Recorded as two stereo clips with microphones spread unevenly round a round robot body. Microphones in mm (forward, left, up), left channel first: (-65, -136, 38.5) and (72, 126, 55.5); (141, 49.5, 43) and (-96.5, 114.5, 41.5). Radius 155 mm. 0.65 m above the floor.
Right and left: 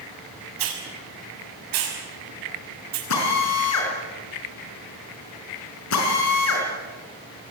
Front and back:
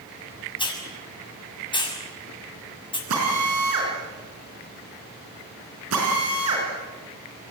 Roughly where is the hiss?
Ahead left.